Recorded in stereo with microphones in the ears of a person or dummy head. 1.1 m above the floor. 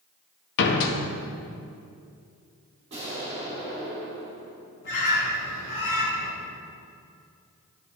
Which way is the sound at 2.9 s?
30° right (ahead or behind).